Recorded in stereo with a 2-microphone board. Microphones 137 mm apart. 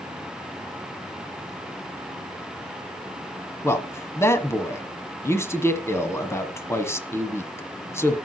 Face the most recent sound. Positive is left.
turn(degrees=20)  # may be behind; listen again after turning